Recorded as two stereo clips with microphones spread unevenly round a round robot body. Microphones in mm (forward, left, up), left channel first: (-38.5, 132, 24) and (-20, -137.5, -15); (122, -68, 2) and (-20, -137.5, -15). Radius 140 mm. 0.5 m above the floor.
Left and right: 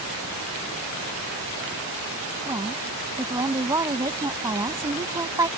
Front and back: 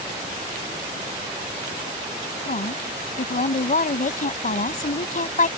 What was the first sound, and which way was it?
A woman speaking, 10° right.